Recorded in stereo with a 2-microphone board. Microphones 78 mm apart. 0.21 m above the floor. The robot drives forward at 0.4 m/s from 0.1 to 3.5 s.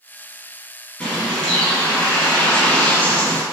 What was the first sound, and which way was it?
A bird, 15° left (ahead or behind).